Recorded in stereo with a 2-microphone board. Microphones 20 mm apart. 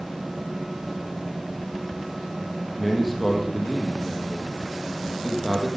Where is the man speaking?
Centre (ahead or behind), 3.5 m.